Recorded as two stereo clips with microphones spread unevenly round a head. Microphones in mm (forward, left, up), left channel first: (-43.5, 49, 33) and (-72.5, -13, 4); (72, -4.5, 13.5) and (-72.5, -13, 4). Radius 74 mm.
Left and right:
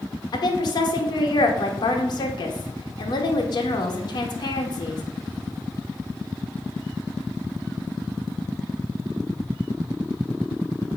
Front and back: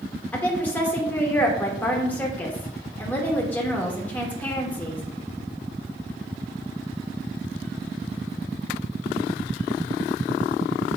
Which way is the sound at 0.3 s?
85° left.